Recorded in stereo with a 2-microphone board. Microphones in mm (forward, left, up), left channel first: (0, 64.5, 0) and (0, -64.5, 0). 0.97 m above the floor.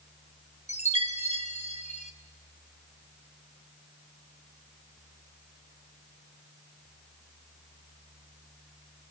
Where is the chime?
60° left (ahead or behind), 1.2 m.